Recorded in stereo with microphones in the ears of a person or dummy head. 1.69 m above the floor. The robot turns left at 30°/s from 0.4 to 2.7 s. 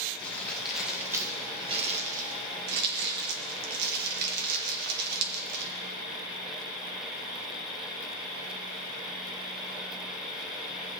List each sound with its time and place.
0.2 s crumpling: 10° left (ahead or behind), 1.6 m; by 5.7 s 60° right (ahead or behind), 1.6 m